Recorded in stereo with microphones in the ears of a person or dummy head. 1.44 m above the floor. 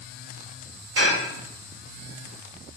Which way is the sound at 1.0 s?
60° right (ahead or behind).